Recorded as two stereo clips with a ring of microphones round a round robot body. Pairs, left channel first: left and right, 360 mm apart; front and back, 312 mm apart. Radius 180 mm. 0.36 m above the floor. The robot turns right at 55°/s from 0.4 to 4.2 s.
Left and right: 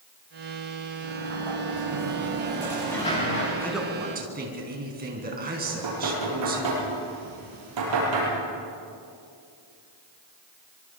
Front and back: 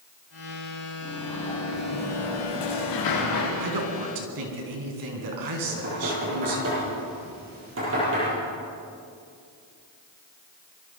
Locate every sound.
1.0 s a sliding door: 100° right, 6.5 m; by 3.5 s 35° left, 6.5 m
3.6 s a man speaking: 170° left, 4 m; by 6.7 s 155° right, 4 m
5.7 s knocking: 120° right, 9 m